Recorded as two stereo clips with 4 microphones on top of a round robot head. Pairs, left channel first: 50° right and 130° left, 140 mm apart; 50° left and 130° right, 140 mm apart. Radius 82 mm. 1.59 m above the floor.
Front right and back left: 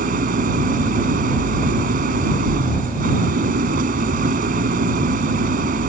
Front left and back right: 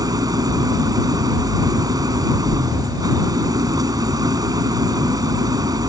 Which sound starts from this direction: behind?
An engine running, at 0.0 s.